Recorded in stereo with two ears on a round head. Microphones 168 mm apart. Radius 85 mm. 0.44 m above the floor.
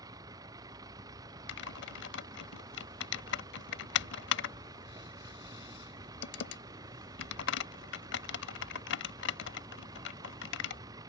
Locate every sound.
0.0 s a vehicle: 20° right (ahead or behind)
1.5 s typing on a keyboard: 70° left (ahead or behind)